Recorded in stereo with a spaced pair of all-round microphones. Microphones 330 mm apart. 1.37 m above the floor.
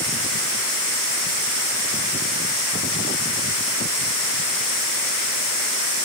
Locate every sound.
Only background noise.